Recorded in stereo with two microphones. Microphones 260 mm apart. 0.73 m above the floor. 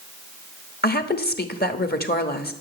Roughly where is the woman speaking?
Left.